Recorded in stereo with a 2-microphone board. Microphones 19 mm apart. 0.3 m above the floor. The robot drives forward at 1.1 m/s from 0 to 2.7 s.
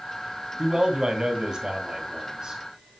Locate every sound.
0.6 s a man speaking: 40° right (ahead or behind), 2.5 m